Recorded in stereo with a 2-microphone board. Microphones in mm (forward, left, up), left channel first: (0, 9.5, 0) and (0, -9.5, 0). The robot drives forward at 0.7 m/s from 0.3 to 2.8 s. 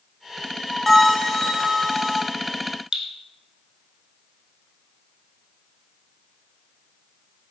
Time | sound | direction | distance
0.9 | a bell | 10° left (ahead or behind) | 0.6 m
2.9 | dripping | 35° right (ahead or behind) | 0.8 m